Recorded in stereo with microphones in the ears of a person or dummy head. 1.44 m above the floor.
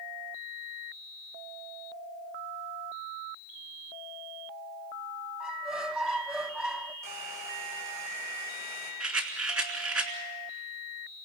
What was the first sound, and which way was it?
A squeak, centre (ahead or behind).